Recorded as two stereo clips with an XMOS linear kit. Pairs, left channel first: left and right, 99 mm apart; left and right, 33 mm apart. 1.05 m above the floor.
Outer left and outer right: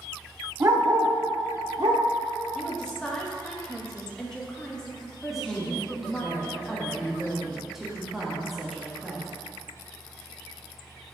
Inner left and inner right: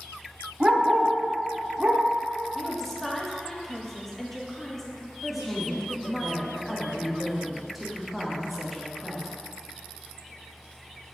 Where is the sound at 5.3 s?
5° right (ahead or behind), 1.6 m.